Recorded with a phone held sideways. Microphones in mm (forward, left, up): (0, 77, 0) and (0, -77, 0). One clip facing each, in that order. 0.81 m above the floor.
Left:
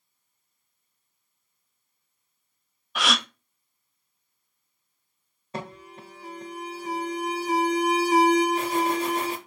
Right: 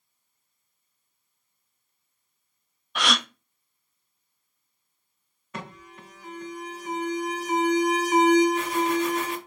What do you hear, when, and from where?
3.0 s a gasp: centre (ahead or behind), 0.5 m
5.5 s an alarm: 30° left (ahead or behind), 1.1 m